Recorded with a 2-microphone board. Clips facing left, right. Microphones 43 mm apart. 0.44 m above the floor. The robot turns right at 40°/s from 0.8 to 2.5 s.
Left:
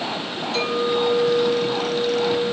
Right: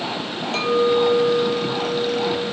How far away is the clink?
About 1.2 m.